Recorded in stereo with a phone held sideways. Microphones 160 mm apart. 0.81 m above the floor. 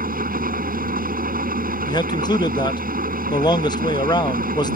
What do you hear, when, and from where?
0.0 s an engine running: 65° right (ahead or behind)
1.9 s a man speaking: 25° left (ahead or behind)